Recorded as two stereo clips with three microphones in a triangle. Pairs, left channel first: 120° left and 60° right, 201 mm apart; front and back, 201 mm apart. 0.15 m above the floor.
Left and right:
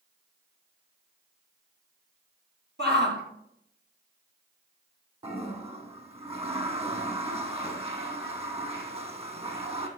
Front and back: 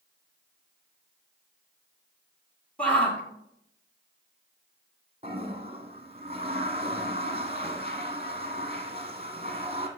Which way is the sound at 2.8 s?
85° right.